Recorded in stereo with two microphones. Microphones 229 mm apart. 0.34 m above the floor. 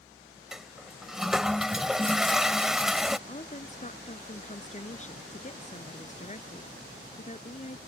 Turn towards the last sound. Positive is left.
turn(degrees=30)  # may be behind; listen again after turning